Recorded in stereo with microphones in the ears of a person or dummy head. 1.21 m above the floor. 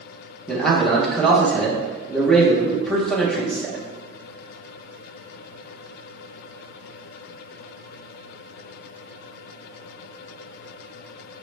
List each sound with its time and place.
0.5 s a man speaking: 10° left (ahead or behind), 0.8 m